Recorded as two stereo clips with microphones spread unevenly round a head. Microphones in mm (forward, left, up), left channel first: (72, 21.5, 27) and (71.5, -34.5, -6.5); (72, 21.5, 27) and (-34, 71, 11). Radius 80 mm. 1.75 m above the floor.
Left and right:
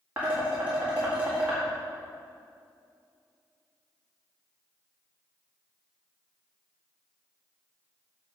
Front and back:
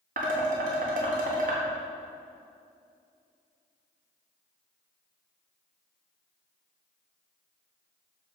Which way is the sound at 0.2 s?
170° left.